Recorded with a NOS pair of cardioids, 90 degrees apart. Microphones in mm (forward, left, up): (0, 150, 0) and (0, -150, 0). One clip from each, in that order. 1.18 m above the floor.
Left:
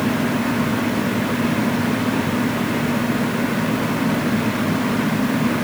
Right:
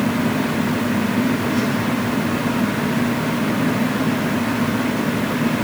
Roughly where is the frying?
I don't hear frying.